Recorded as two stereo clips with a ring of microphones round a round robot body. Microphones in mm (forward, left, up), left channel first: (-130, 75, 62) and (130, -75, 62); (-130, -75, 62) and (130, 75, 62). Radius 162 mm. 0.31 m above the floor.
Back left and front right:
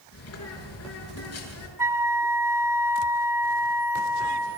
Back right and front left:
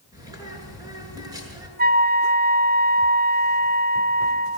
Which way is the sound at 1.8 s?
40° left.